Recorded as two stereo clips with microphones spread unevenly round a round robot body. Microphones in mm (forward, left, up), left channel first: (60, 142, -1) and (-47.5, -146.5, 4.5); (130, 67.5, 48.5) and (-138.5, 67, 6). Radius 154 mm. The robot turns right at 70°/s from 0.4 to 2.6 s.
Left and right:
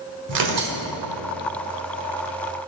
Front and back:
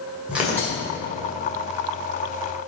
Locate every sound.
0.3 s tearing paper: 100° right, 1.8 m; by 0.8 s 75° right, 1.8 m